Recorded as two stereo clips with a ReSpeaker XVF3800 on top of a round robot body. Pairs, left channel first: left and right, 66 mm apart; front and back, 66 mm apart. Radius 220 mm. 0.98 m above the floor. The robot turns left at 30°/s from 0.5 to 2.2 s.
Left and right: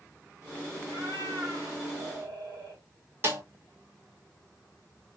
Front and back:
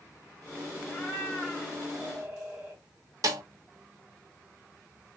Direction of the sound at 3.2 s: 145° right.